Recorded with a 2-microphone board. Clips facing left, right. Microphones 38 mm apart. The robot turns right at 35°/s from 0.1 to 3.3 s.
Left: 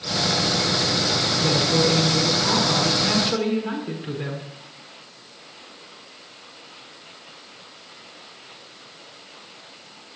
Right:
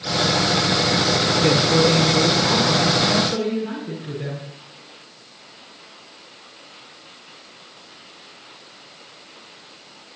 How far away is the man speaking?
About 5 m.